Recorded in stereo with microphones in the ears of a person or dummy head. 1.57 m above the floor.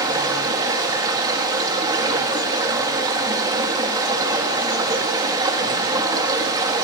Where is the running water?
20° right (ahead or behind), 3 m.